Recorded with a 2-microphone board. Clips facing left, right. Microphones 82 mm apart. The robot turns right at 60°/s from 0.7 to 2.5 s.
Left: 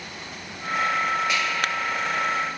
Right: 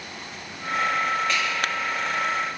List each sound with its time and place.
1.3 s a finger snap: 15° left (ahead or behind), 1.3 m; by 1.4 s 20° left (ahead or behind), 1.3 m